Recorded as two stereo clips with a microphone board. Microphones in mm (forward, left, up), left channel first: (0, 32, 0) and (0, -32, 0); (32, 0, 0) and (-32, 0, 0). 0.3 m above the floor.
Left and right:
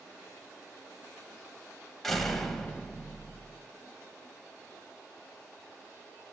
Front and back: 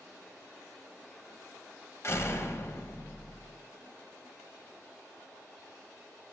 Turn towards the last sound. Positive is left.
turn(degrees=5)